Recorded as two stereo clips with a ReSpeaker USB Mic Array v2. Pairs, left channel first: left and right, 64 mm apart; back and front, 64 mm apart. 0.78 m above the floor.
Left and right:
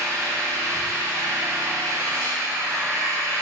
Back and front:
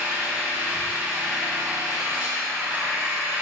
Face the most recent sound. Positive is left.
turn(degrees=-65)